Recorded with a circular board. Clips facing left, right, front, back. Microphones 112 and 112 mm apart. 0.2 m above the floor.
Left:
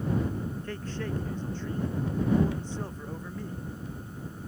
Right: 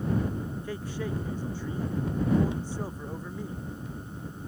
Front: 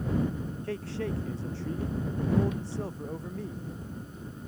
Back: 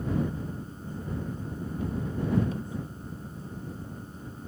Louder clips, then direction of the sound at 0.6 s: Right 1 dB, front 6 dB; 10° right.